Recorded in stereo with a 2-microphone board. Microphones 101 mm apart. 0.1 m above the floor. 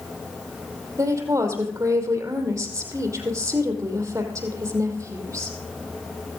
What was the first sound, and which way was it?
A woman speaking, 35° right (ahead or behind).